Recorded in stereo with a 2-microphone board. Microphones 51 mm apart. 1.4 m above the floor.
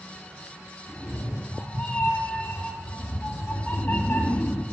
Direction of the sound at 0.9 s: 25° left (ahead or behind).